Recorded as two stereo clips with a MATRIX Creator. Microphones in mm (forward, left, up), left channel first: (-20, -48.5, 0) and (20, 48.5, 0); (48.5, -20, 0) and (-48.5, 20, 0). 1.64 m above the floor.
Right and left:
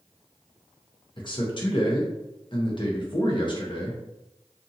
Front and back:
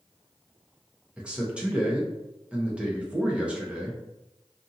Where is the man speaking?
125° right, 0.8 m.